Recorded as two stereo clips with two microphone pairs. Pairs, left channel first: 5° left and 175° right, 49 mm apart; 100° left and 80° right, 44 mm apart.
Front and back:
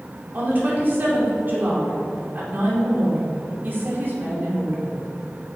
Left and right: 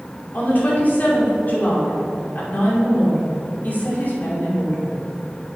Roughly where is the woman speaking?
Behind left.